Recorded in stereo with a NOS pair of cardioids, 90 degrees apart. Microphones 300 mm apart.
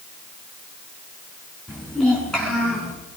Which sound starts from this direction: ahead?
A child speaking, at 1.7 s.